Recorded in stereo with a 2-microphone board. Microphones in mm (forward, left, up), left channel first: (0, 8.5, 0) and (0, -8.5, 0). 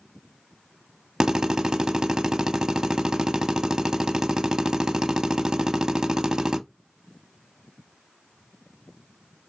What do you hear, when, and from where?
1.2 s a drill: 45° right (ahead or behind), 0.7 m